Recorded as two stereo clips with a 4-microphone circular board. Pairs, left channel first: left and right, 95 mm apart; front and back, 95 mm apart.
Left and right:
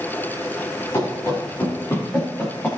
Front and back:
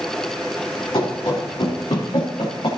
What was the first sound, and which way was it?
Running footsteps, 40° left.